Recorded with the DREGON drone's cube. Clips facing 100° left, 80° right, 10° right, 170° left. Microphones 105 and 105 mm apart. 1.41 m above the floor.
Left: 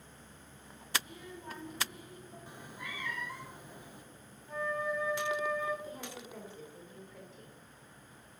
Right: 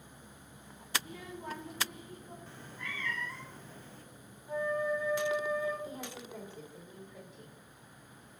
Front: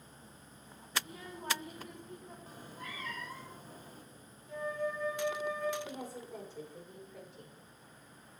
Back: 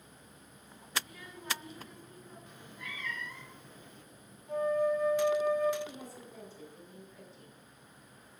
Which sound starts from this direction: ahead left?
A cat meowing, at 2.5 s.